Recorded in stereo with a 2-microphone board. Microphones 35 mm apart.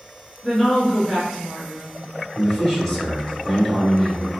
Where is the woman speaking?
Centre (ahead or behind), 1.5 m.